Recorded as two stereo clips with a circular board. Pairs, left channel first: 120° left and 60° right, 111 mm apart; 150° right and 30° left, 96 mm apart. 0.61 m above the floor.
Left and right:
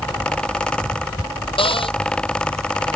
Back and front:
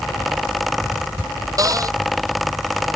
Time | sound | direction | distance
1.6 | a cupboard door | 80° left | ?